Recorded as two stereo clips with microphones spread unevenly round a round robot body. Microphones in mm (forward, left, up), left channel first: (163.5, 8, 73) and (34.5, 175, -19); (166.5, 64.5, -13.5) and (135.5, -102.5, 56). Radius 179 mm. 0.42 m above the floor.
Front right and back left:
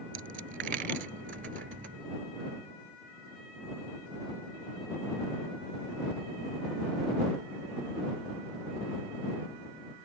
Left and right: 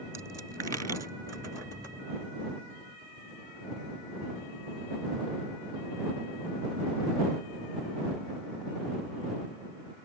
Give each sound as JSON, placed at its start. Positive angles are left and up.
{"t": 0.1, "sound": "a dropped coin", "azimuth_deg": -165}